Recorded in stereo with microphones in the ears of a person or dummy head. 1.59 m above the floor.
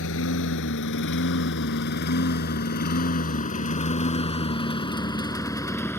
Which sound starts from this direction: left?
A lawn mower, at 0.0 s.